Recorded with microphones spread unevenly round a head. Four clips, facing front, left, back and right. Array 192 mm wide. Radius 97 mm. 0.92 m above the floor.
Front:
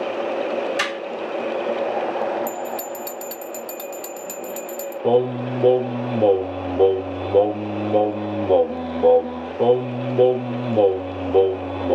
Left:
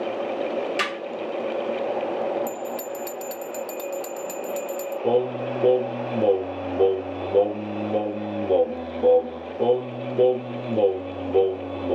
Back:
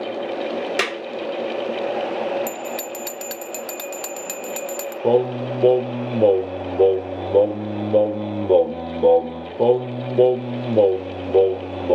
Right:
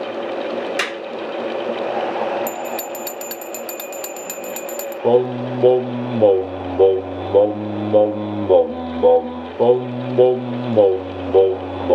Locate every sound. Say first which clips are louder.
0.8 s a clap: right 3 dB, back 1 dB; 175° left, 1.3 m
2.5 s a bell: right 4 dB, front 1 dB; 125° right, 0.6 m
5.0 s singing: right 7 dB, even; 115° right, 0.6 m